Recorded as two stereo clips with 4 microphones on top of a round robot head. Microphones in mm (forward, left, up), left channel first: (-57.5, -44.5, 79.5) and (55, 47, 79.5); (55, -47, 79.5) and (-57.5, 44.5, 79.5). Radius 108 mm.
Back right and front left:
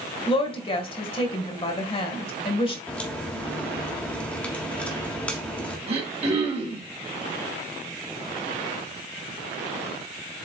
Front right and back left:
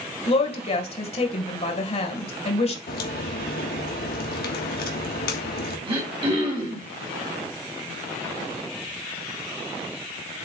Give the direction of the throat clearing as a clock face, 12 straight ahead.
9 o'clock.